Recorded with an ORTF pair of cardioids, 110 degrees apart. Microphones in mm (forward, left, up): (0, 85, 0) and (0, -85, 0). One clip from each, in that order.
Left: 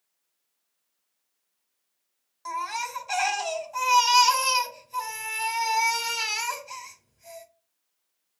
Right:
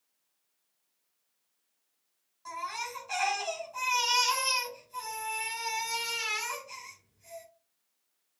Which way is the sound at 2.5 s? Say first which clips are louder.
Left 6 dB; 55° left.